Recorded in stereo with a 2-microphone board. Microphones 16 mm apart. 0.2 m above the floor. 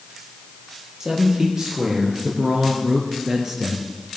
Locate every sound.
1.0 s a man speaking: 25° right (ahead or behind), 5.5 m; by 3.9 s 15° right (ahead or behind), 3 m